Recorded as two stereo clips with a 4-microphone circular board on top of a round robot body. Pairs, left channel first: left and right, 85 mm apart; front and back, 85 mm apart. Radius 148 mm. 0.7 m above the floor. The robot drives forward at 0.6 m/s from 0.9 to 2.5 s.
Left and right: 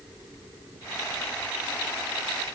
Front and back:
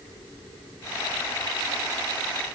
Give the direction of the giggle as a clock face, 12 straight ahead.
No giggle in this recording.